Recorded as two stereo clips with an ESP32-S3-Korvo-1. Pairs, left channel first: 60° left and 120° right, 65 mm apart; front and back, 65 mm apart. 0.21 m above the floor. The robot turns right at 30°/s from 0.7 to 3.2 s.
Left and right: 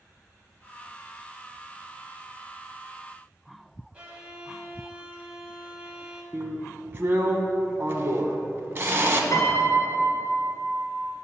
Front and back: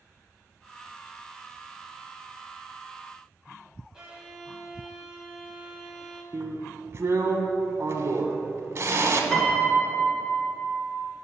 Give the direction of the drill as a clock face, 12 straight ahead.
5 o'clock.